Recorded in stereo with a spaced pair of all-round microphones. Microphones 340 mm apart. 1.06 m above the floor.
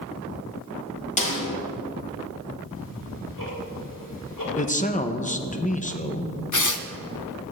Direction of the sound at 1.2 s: 20° left (ahead or behind).